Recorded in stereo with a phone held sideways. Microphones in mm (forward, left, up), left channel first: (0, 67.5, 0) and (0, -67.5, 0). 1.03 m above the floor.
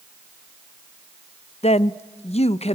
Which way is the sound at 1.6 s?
50° left (ahead or behind).